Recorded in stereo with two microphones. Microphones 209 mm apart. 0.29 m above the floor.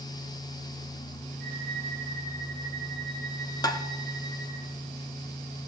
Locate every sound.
1.4 s a violin: 50° right (ahead or behind), 6 m
3.6 s tapping: 20° left (ahead or behind), 0.7 m